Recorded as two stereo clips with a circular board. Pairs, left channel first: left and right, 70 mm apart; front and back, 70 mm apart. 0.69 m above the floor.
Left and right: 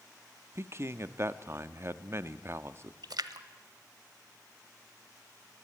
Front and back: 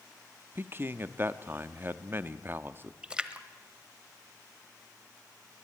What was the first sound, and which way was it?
A man speaking, 130° right.